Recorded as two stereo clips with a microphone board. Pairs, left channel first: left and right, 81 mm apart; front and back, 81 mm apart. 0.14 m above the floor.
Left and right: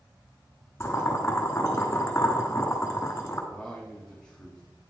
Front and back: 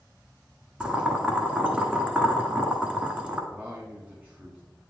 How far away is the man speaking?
About 1.4 m.